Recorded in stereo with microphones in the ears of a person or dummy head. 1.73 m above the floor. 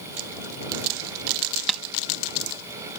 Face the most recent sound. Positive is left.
turn(degrees=5)  # may be behind; listen again after turning